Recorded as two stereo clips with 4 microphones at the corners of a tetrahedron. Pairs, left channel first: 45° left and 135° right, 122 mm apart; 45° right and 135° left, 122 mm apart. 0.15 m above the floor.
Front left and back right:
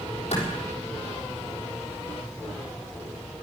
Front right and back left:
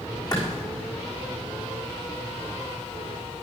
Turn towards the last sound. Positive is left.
turn(degrees=15)